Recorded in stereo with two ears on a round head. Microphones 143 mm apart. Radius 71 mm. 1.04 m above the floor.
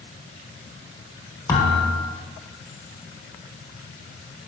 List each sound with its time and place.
1.5 s a thud: 20° left (ahead or behind), 1.0 m